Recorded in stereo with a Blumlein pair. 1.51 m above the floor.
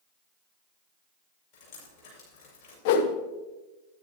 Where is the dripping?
40° left, 6.5 m.